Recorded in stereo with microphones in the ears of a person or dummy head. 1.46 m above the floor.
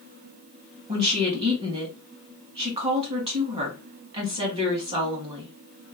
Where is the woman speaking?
30° right (ahead or behind), 1.5 m.